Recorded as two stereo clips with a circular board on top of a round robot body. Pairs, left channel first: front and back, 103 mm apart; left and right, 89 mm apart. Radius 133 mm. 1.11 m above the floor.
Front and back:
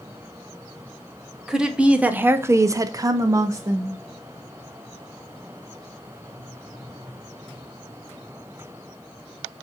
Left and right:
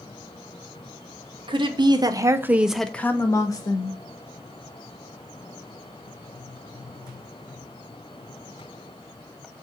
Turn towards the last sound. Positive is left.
turn(degrees=120)